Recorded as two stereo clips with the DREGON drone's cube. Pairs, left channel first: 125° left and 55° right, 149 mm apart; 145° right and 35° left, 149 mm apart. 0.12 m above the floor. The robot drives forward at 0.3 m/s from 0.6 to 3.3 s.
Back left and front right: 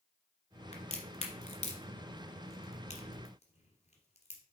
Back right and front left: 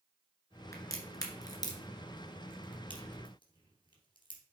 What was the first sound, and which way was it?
A crack, 150° left.